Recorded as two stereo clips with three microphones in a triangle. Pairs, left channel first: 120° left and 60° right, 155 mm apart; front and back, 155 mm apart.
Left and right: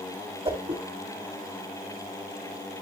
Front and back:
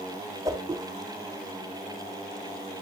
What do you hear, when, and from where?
0.5 s a whoosh: 110° right, 1.8 m